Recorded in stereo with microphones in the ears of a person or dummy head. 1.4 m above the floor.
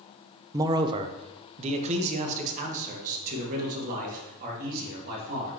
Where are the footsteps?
I don't hear footsteps.